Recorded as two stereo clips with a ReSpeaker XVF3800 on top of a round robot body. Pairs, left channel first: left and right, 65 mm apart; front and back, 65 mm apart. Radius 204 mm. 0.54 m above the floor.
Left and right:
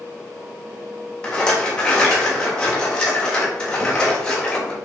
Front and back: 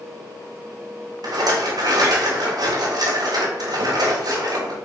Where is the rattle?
170° left, 3.5 m.